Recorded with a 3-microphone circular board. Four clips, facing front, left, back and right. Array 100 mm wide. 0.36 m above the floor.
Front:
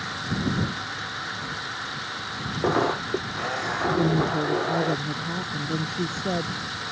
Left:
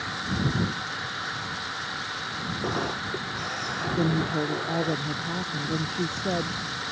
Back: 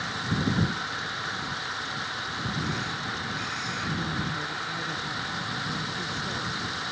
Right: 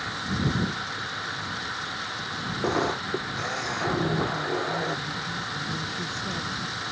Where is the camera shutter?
20° right.